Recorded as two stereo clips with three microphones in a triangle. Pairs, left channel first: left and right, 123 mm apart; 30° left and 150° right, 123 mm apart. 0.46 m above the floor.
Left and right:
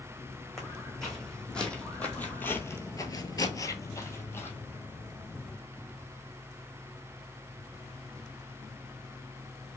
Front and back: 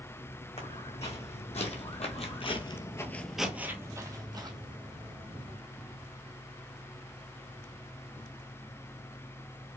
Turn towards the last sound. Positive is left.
turn(degrees=165)